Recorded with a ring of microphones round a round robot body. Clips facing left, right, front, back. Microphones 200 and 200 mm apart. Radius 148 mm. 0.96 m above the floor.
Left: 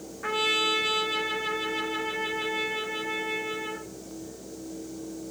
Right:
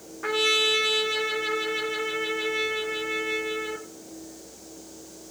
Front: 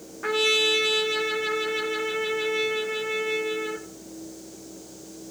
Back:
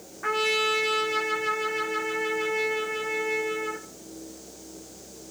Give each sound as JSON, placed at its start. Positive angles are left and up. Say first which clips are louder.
{"t": 0.2, "sound": "a trumpet", "louder": "right 4 dB, front 3 dB", "azimuth_deg": -50, "distance_m": 1.7}